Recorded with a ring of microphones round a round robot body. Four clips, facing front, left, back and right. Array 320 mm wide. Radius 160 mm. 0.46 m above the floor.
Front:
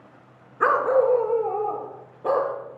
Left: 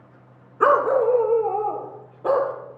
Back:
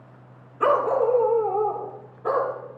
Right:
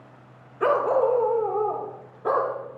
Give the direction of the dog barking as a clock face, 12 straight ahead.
9 o'clock.